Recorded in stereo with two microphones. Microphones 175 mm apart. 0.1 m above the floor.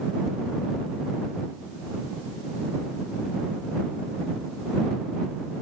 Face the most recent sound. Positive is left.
No sound to turn to.